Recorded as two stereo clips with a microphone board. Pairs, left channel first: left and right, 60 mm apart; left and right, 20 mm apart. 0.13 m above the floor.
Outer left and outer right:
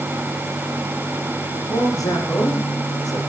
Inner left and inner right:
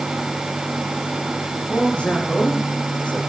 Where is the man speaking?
75° left (ahead or behind), 9 m.